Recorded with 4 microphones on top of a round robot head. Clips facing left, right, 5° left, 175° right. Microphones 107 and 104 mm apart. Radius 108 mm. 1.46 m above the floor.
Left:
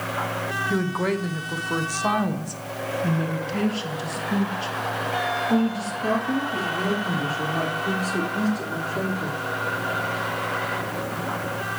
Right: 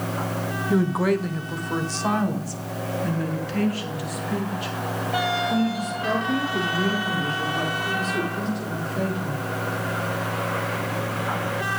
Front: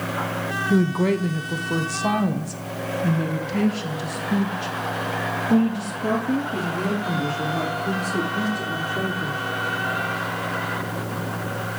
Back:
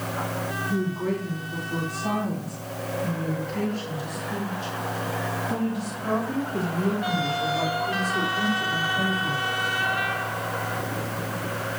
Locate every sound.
0.7 s a woman speaking: 10° right, 1.0 m; by 9.4 s 35° left, 5 m